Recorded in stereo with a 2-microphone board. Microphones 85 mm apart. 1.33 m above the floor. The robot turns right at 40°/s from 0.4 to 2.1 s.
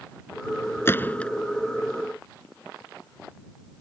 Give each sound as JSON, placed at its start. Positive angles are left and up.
{"t": 0.8, "sound": "a gunshot", "side_deg": 30}